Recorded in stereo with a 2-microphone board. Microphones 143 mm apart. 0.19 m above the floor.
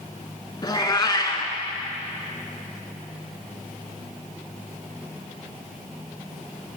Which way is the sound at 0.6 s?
30° left (ahead or behind).